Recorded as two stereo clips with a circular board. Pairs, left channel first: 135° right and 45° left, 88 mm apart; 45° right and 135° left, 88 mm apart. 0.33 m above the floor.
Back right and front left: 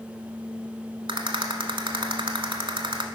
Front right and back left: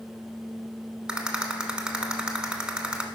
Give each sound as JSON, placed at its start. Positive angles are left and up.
{"t": 1.1, "sound": "a rattle", "azimuth_deg": 55, "distance_m": 0.8}